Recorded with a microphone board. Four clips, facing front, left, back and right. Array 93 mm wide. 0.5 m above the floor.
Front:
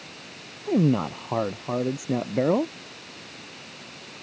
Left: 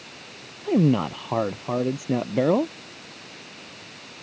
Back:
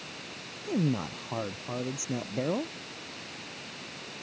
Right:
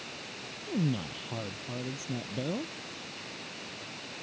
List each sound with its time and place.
0.7 s a man speaking: 60° left